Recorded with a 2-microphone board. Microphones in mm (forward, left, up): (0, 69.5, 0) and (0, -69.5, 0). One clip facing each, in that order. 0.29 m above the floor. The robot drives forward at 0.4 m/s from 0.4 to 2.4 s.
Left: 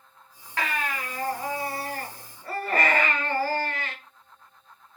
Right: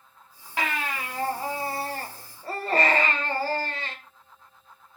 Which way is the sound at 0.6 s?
20° right (ahead or behind).